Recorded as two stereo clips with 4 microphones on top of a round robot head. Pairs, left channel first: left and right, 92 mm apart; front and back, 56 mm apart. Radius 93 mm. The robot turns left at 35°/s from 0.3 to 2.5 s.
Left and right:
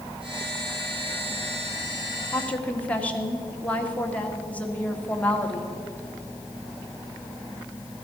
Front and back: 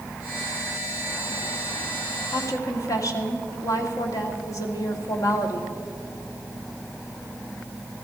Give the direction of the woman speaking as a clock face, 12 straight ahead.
11 o'clock.